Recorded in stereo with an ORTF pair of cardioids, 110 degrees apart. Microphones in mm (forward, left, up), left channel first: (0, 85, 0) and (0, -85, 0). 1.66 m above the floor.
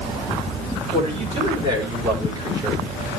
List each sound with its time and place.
0.9 s a man speaking: 35° right, 6 m; by 2.9 s 20° right, 5 m